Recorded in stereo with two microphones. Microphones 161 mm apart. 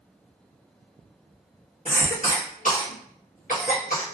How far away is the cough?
About 1.4 m.